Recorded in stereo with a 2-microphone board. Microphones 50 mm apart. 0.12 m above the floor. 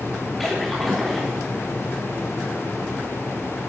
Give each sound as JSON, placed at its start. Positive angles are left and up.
{"t": 0.4, "sound": "a splash", "side_deg": 0, "distance_m": 4.5}